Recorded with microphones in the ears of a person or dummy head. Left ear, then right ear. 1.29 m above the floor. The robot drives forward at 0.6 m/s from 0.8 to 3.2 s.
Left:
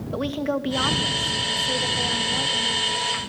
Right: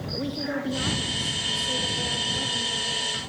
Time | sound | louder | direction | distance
0.1 | a woman speaking | left 5 dB | 40° left (ahead or behind) | 1.9 m